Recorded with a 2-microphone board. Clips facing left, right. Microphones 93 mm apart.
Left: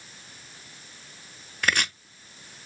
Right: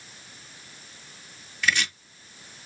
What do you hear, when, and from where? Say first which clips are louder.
1.6 s chopping: even; 50° left (ahead or behind), 0.5 m